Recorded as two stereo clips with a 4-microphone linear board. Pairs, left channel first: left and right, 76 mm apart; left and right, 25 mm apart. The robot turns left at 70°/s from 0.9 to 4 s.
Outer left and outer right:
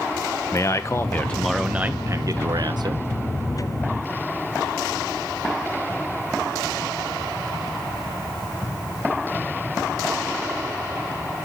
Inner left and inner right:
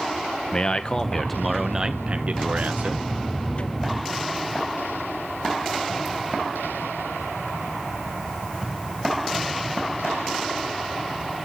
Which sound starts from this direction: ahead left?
A man speaking, at 0.5 s.